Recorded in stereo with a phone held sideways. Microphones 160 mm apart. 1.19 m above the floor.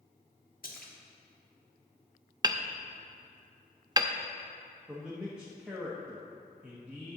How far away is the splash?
About 1.4 m.